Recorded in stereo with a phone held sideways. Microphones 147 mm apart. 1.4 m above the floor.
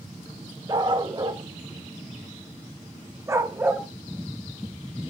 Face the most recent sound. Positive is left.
turn(degrees=-15)  # may be behind; listen again after turning